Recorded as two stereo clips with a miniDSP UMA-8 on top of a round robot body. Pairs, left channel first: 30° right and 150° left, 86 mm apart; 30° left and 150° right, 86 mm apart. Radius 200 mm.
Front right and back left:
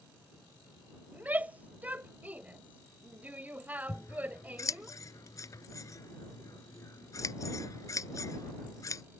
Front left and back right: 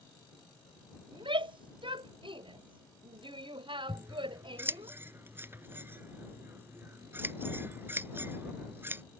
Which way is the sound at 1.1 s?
140° right.